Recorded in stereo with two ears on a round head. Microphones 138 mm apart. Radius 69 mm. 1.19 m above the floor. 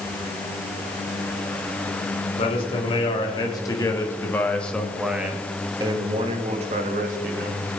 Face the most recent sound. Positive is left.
turn(degrees=-60)  # may be behind; listen again after turning